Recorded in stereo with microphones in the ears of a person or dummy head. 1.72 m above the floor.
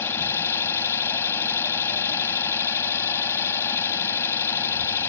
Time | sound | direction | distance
0.0 | an engine running | 10° left (ahead or behind) | ?